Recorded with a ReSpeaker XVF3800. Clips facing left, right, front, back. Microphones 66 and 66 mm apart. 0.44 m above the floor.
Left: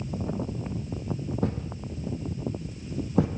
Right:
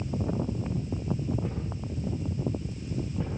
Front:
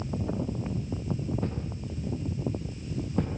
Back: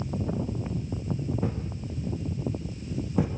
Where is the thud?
95° left, 5.5 m.